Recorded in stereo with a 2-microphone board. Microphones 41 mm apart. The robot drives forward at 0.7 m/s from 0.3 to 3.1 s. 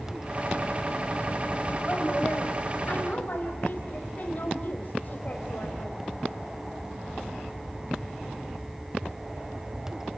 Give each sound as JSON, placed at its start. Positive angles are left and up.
{"t": 1.9, "sound": "a woman speaking", "side_deg": 40, "distance_m": 4.0}